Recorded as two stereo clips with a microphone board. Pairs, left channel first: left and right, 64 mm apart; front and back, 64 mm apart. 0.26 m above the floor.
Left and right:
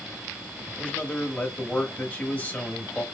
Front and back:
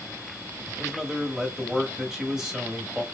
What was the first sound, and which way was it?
A man speaking, 110° left.